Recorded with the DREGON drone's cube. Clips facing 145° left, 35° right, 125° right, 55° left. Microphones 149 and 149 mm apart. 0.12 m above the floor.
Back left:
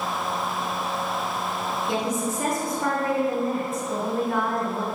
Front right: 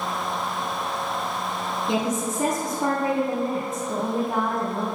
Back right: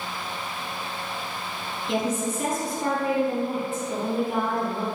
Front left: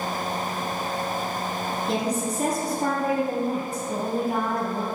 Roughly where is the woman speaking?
Ahead left.